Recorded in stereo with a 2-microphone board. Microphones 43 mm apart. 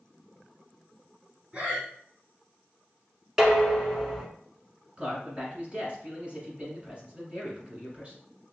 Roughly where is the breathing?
Right.